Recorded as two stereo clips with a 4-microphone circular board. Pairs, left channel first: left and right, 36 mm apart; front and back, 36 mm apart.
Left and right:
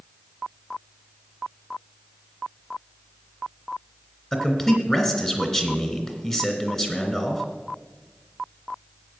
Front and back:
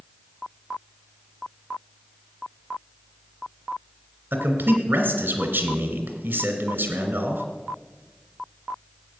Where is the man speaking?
160° left, 2.5 m.